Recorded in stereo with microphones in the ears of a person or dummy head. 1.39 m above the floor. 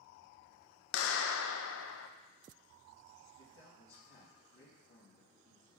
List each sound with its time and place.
0.9 s a clap: 80° left, 0.5 m
3.4 s a man speaking: 70° left (ahead or behind), 2 m